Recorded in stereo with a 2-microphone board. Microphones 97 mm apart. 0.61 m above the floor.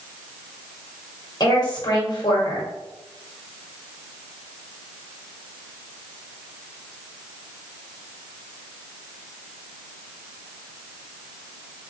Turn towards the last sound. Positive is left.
turn(degrees=45)  # may be behind; listen again after turning